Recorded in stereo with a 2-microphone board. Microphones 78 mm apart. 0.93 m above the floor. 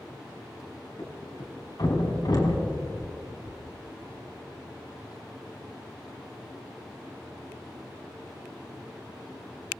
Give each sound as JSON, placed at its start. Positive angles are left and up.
{"t": 1.0, "sound": "a thud", "side_deg": 60, "distance_m": 3.5}